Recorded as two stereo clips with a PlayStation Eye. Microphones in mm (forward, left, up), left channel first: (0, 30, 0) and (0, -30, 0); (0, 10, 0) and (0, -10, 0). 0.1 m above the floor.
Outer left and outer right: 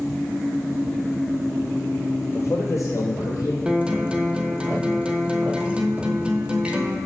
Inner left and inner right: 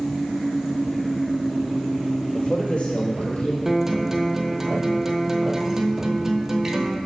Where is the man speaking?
50° left (ahead or behind), 2 m; by 3.5 s 70° left (ahead or behind), 3.5 m.